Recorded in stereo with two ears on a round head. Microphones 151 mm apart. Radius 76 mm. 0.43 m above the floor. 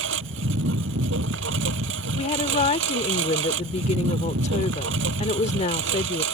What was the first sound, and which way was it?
A lawn mower, 90° right.